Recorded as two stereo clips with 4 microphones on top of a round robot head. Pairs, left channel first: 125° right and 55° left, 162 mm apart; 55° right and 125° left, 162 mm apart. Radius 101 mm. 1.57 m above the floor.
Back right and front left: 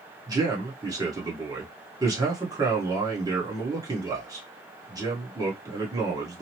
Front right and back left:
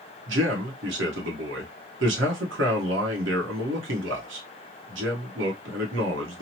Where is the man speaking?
125° left, 1.0 m.